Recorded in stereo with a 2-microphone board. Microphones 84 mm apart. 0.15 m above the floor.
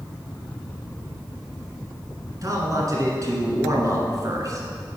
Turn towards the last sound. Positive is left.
turn(degrees=-45)  # may be behind; listen again after turning